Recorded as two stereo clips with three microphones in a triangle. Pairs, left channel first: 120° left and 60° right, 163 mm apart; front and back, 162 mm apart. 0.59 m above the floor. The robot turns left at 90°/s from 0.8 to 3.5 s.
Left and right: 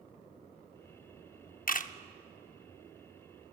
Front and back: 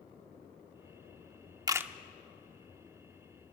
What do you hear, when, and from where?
1.7 s a camera shutter: 115° left, 0.6 m; by 1.9 s 95° left, 0.6 m